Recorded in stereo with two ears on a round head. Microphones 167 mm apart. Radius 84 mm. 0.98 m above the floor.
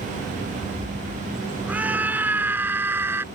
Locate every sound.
1.7 s a scream: 10° right (ahead or behind)